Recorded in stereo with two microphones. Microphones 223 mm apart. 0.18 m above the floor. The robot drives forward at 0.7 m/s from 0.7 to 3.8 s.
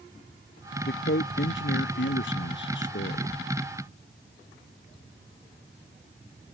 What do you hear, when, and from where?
0.9 s a man speaking: 55° left (ahead or behind)